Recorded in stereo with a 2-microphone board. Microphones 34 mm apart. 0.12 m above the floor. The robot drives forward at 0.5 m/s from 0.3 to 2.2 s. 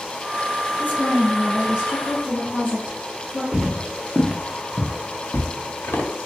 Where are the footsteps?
10° right (ahead or behind), 1.4 m; by 6.1 s 85° left, 1.0 m.